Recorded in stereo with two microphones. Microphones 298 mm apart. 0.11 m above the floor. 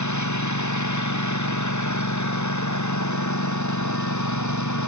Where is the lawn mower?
70° left (ahead or behind).